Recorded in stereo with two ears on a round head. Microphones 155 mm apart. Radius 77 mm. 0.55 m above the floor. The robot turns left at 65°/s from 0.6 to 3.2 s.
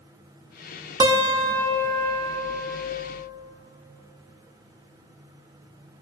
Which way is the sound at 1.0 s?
30° right.